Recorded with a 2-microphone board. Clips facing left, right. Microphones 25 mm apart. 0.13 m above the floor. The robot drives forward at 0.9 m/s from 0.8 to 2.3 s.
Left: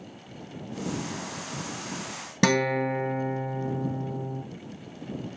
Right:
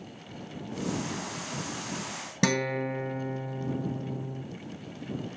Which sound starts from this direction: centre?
A guitar, at 2.4 s.